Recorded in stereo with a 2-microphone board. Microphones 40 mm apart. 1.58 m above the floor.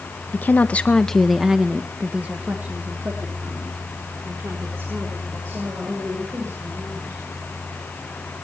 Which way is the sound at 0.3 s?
50° left (ahead or behind).